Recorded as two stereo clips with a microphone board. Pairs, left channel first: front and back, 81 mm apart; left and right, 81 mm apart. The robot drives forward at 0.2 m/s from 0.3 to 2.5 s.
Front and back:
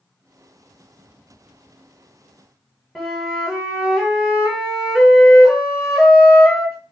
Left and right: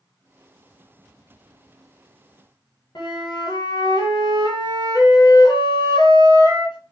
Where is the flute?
95° left, 0.8 m.